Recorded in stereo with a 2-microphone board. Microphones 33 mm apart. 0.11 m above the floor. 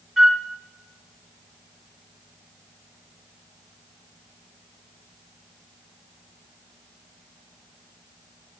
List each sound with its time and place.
0.2 s a flute: 10° right (ahead or behind), 1.0 m